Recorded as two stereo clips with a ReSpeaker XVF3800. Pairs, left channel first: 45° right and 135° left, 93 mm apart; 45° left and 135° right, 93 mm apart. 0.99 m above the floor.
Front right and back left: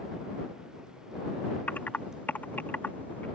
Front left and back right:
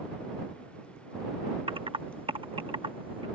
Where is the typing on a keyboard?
115° right.